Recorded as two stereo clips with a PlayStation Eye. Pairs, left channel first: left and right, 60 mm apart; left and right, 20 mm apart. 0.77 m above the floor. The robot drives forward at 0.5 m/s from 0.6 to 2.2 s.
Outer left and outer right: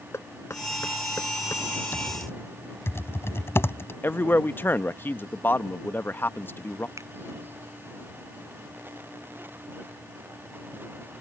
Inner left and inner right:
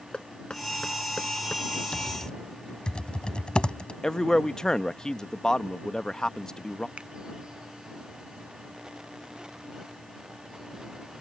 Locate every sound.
0.1 s knocking: 50° left (ahead or behind)
1.9 s typing on a keyboard: 45° left (ahead or behind)
4.0 s a man speaking: 35° left (ahead or behind)
7.0 s a finger snap: 60° right (ahead or behind)